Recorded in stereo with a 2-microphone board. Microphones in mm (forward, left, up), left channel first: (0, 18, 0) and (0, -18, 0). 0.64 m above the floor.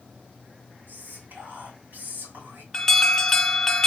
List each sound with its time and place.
0.9 s whispering: 65° right (ahead or behind), 2.5 m
2.7 s an alarm: 10° left (ahead or behind), 0.6 m